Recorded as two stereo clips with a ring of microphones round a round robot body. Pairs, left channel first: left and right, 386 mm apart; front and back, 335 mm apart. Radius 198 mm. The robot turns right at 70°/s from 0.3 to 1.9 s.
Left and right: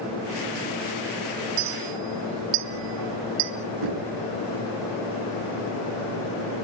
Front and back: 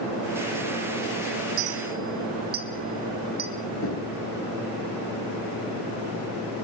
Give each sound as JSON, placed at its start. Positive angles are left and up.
{"t": 1.6, "sound": "a clink", "azimuth_deg": -135, "distance_m": 1.9}
{"t": 3.8, "sound": "knocking", "azimuth_deg": -60, "distance_m": 7.5}